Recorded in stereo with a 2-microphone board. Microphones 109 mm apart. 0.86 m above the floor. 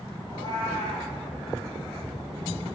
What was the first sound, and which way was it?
A cat meowing, 35° left (ahead or behind).